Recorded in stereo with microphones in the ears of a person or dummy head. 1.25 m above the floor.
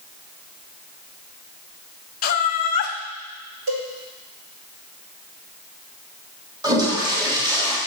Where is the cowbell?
65° right (ahead or behind), 2.5 m.